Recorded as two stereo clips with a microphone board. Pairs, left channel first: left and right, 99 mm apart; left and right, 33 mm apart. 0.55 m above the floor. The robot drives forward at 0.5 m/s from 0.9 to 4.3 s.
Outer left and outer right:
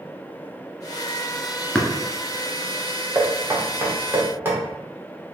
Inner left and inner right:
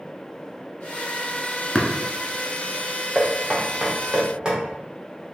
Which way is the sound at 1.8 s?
5° left (ahead or behind).